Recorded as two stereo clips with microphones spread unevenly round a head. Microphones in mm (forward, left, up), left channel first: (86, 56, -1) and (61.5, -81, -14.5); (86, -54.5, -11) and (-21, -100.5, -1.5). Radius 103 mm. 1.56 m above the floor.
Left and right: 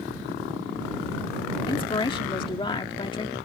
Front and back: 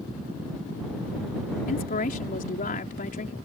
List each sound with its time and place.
1.7 s a woman speaking: 25° left